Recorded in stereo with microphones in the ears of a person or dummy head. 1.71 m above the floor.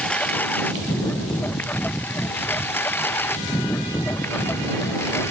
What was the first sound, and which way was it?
A lawn mower, 5° left (ahead or behind).